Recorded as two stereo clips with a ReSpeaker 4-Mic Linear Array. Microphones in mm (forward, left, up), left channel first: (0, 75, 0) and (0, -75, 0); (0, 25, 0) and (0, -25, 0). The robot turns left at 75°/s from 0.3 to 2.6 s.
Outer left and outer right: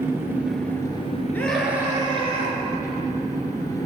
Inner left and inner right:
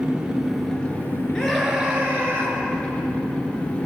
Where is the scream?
15° left, 2.5 m; by 2.6 s 75° right, 2.5 m.